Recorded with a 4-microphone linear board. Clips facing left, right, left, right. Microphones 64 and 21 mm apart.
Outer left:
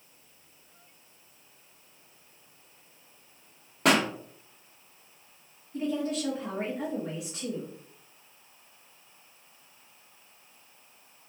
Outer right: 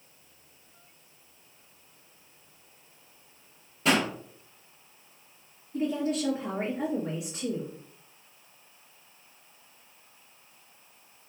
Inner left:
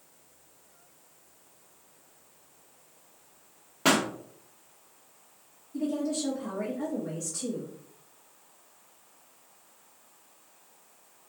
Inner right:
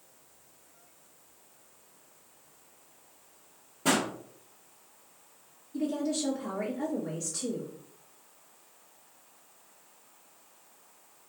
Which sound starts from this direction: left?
A pop, at 3.9 s.